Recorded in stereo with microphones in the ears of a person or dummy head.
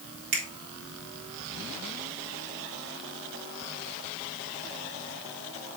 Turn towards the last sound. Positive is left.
turn(degrees=-60)  # may be behind; listen again after turning